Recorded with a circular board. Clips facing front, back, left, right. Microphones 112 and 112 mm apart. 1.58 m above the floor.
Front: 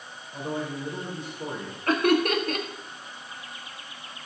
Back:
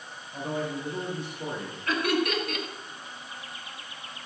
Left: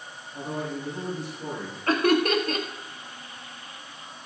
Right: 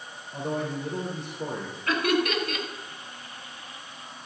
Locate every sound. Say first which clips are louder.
0.3 s a man speaking: even, right 2 dB; 85° right, 4 m
1.9 s laughter: front 5 dB, left 4 dB; 40° left, 1.5 m